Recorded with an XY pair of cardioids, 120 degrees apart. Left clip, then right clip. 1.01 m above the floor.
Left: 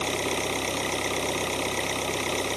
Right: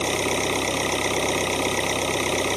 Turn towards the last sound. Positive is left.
turn(degrees=-30)